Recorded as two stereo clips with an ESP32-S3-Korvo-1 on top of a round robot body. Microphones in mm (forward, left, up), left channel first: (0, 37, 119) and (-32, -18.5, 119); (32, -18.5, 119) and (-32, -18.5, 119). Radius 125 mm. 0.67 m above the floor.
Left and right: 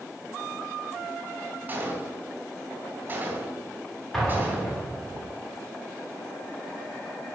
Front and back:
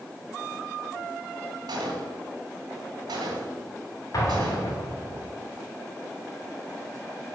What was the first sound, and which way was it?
A gunshot, 175° left.